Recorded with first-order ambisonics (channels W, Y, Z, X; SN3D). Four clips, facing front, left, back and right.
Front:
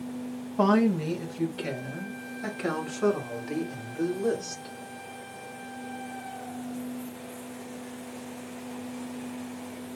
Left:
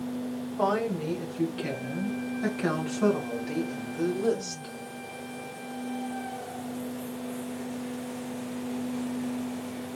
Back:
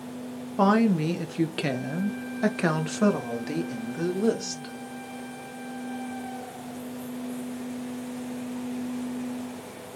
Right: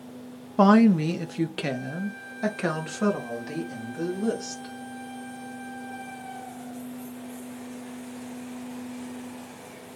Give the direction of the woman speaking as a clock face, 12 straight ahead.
4 o'clock.